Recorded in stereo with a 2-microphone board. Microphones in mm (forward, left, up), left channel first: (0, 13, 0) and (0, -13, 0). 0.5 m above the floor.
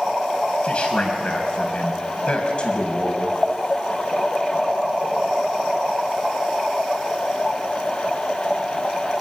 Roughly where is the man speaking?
Left.